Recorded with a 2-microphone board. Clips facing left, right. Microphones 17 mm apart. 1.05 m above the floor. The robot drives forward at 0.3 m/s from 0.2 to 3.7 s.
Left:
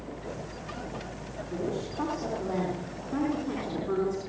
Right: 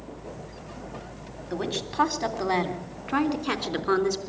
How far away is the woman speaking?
About 3.5 m.